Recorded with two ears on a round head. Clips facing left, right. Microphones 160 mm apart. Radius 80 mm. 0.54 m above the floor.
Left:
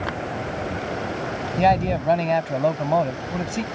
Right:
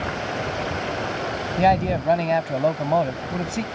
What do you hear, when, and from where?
1.6 s a man speaking: centre (ahead or behind)